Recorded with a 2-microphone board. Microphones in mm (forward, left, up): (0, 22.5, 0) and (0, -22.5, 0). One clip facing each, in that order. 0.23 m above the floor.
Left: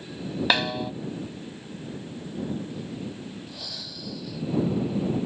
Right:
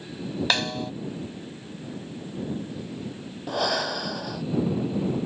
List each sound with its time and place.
0.5 s a snare drum: 10° left (ahead or behind)
3.5 s breathing: 65° right (ahead or behind)